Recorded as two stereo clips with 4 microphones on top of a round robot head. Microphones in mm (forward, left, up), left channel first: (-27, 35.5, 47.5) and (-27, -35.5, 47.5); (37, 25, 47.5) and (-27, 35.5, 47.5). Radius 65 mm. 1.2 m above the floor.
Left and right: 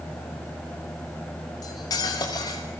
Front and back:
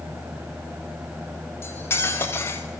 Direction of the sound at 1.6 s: 45° left.